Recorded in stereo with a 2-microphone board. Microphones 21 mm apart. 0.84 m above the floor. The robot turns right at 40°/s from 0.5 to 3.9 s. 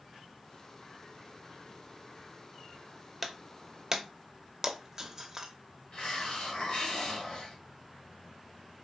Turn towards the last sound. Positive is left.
turn(degrees=45)  # may be behind; listen again after turning